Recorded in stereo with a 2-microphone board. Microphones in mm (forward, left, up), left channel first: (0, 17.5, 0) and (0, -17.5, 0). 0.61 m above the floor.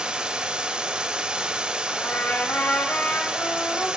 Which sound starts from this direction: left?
A trumpet, at 1.9 s.